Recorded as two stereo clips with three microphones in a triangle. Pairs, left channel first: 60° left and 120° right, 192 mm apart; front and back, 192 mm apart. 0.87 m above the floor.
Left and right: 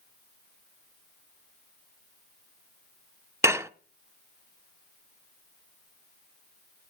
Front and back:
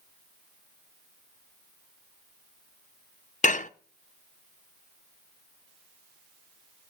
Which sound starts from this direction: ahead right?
Dishes clattering, at 3.4 s.